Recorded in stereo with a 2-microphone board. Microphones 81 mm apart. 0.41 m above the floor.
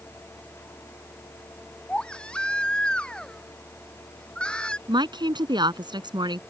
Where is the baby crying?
10° left (ahead or behind).